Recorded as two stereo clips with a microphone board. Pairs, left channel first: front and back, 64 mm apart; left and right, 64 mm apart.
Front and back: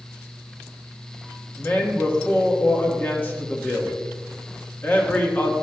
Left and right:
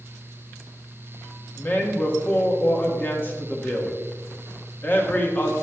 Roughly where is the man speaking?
Ahead left.